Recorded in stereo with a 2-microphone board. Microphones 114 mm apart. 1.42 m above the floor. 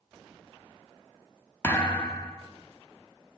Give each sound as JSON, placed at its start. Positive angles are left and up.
{"t": 1.6, "sound": "a thud", "side_deg": 15, "distance_m": 1.0}